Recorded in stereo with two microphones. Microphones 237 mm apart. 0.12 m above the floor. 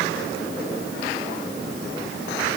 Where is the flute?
I don't hear a flute.